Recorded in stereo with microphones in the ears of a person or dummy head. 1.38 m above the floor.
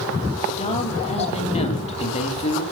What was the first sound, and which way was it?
A man speaking, 35° left (ahead or behind).